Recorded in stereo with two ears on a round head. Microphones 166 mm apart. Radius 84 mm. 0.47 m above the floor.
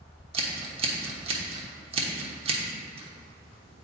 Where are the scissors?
30° right (ahead or behind), 1.1 m.